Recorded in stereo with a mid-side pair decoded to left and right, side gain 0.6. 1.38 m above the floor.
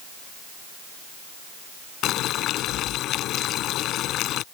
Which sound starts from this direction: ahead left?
Boiling, at 2.0 s.